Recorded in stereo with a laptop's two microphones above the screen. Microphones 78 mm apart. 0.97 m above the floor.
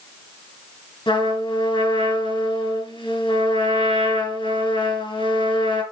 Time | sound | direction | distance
1.1 | a trumpet | 90° left | 4.5 m